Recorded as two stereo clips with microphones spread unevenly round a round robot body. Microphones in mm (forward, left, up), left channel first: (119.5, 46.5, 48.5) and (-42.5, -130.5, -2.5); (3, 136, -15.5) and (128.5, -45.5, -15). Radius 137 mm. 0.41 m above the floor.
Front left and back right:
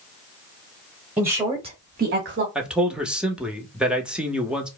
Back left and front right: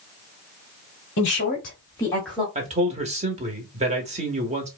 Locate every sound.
1.2 s a woman speaking: 150° left, 1.3 m; by 2.5 s 140° right, 1.3 m
2.5 s a man speaking: 75° right, 0.8 m